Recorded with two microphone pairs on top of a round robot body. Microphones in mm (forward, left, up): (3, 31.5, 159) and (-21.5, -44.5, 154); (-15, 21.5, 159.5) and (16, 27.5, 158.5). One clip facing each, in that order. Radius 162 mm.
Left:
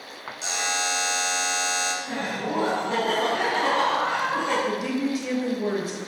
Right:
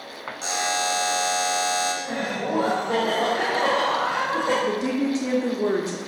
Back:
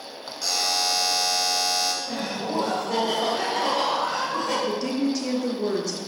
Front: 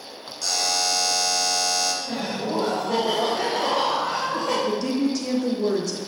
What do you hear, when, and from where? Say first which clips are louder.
0.4 s a buzzer: right 3 dB, front 1 dB; 90° right, 1.9 m
2.0 s laughter: right 2 dB, front 1 dB; 65° right, 2.5 m
4.7 s a woman speaking: right 2 dB, front 2 dB; 80° right, 1.3 m